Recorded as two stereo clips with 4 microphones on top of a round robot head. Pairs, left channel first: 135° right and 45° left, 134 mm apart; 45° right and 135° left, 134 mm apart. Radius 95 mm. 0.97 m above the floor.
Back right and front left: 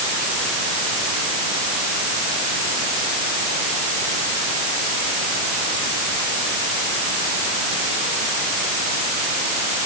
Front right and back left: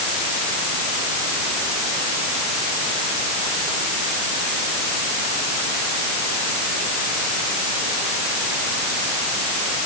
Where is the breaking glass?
I don't hear breaking glass.